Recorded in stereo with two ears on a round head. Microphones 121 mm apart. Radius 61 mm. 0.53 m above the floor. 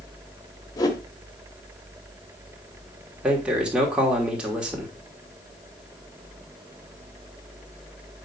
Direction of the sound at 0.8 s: 30° left (ahead or behind).